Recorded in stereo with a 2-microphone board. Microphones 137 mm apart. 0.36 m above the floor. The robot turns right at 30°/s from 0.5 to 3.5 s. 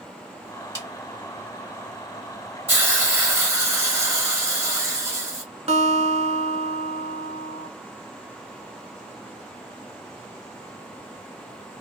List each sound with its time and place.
0.8 s a snare drum: 25° right (ahead or behind), 1.6 m
2.7 s a hiss: 15° right (ahead or behind), 1.2 m; by 5.4 s 20° right (ahead or behind), 1.2 m
5.7 s a guitar: 50° right (ahead or behind), 0.6 m